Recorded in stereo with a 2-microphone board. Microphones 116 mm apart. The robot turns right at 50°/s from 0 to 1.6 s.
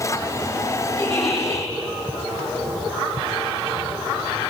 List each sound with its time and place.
1.0 s a giggle: 130° right, 9.5 m; by 1.7 s 100° right, 9.5 m